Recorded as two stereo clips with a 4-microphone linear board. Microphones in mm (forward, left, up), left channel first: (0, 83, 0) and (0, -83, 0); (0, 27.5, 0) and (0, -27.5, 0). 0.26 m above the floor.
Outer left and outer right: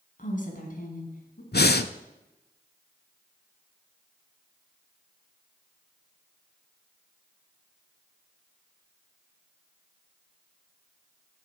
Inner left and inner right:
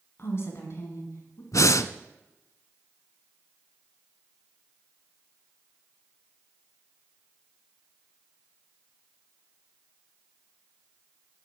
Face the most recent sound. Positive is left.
turn(degrees=75)  # may be behind; listen again after turning